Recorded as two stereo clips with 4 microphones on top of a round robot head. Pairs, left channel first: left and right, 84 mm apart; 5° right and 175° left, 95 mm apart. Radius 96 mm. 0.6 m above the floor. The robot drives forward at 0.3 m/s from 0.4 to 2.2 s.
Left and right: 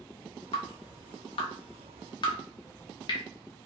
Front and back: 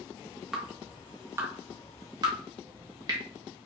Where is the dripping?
90° left, 0.7 m; by 3.2 s 125° left, 0.9 m.